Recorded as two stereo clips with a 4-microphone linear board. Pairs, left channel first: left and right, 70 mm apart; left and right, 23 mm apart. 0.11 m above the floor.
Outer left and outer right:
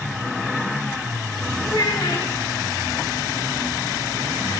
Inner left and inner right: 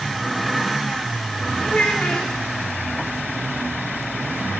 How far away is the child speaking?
About 7.5 m.